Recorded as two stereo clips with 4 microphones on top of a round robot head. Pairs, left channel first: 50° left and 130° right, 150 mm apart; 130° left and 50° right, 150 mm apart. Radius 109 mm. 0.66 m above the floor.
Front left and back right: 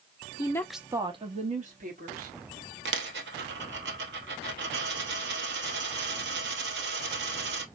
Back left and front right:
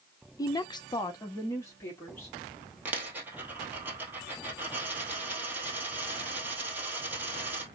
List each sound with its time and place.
0.4 s a woman speaking: 80° left, 0.9 m; by 2.4 s 150° right, 2.5 m
2.9 s a dropped coin: 130° right, 1.4 m